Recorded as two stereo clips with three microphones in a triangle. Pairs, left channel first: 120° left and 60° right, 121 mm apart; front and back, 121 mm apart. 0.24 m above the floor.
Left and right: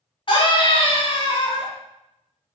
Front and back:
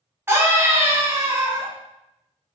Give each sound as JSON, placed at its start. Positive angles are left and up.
{"t": 0.3, "sound": "a scream", "azimuth_deg": 120, "distance_m": 1.6}